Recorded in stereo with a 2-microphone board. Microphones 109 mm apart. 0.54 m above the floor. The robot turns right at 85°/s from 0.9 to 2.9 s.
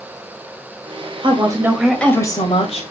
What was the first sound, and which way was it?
A woman speaking, 55° right.